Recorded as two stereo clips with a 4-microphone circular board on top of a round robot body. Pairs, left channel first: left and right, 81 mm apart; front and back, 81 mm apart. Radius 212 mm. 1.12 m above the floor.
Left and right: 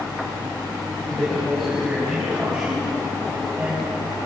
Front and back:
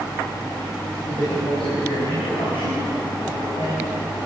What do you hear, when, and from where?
1.1 s a man speaking: 5° left, 7 m; by 4.2 s 25° right, 6 m